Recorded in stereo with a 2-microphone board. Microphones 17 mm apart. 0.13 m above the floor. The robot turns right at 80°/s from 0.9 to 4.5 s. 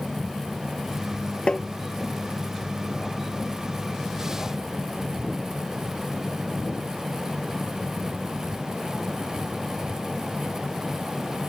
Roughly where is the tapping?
Left.